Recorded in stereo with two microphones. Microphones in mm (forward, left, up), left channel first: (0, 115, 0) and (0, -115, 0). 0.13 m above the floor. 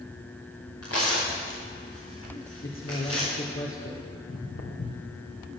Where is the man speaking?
65° left (ahead or behind), 3 m.